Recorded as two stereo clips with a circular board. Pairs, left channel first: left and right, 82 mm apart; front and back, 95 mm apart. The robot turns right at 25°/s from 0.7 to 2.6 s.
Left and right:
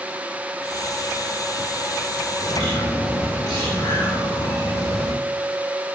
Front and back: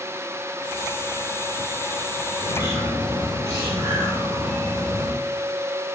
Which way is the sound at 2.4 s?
120° left.